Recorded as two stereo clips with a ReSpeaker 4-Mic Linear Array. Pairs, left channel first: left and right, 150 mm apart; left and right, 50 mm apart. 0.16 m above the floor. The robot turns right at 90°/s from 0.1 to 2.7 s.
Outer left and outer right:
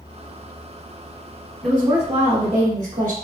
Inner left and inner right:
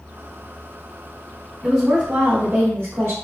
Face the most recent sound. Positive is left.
turn(degrees=-90)